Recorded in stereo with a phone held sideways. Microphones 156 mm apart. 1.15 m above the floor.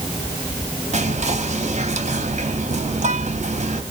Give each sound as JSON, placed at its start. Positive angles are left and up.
{"t": 0.9, "sound": "whispering", "side_deg": -50, "distance_m": 1.0}